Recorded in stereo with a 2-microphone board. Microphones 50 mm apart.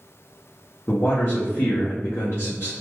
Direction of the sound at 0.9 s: 55° left (ahead or behind).